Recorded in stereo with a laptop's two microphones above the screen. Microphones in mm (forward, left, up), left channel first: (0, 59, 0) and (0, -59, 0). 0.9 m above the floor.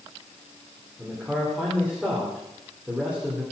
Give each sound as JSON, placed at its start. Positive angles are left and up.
{"t": 1.0, "sound": "a man speaking", "side_deg": -10, "distance_m": 2.5}